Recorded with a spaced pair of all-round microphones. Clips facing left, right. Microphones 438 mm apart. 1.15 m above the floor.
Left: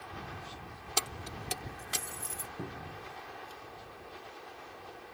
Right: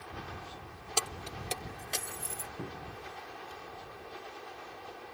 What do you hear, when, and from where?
1.0 s keys jangling: 35° left (ahead or behind); by 2.5 s 15° left (ahead or behind)
2.6 s a cupboard door: centre (ahead or behind)